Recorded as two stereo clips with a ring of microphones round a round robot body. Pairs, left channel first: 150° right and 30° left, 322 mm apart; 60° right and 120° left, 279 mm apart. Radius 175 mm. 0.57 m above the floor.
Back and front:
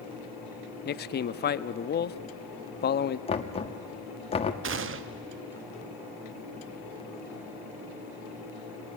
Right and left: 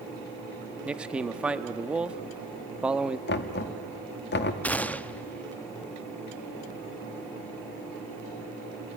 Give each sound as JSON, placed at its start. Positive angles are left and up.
{"t": 0.8, "sound": "a man speaking", "azimuth_deg": -160, "distance_m": 0.7}
{"t": 3.3, "sound": "knocking", "azimuth_deg": -85, "distance_m": 1.2}
{"t": 4.6, "sound": "a gunshot", "azimuth_deg": 20, "distance_m": 0.6}